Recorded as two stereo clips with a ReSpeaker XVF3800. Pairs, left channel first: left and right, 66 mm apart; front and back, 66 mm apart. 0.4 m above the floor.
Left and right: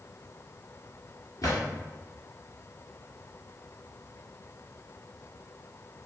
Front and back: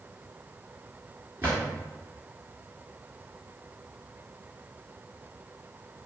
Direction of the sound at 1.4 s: 120° left.